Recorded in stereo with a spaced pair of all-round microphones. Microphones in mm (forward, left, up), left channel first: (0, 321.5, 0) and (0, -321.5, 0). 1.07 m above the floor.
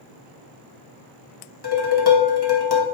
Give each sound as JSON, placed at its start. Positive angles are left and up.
{"t": 1.6, "sound": "dishes clattering", "side_deg": 35, "distance_m": 1.1}